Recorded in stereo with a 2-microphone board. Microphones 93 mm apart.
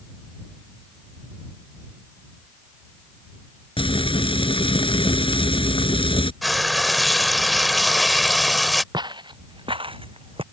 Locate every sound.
3.8 s frying: 70° left (ahead or behind)
6.4 s frying: centre (ahead or behind)
8.9 s footsteps: 55° right (ahead or behind); by 10.4 s 80° right